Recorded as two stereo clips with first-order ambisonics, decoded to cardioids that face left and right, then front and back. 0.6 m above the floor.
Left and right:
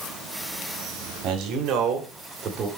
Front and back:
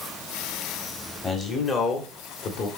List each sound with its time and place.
1.2 s a man speaking: 70° right, 1.6 m; by 2.7 s 35° right, 2 m